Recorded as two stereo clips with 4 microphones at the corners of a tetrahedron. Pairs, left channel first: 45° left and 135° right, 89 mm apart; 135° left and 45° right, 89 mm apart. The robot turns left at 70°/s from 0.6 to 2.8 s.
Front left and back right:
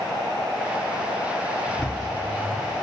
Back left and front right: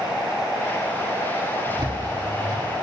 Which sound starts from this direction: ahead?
A bird, at 1.6 s.